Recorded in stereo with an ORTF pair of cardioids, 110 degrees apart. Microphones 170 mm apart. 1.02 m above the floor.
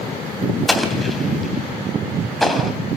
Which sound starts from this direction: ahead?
An explosion, at 0.7 s.